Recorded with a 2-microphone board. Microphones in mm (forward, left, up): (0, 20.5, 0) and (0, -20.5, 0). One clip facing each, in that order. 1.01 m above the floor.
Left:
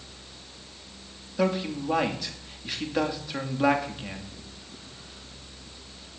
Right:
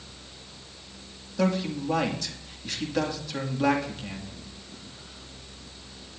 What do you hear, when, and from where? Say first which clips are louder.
1.4 s a man speaking: even; 15° left (ahead or behind), 2.5 m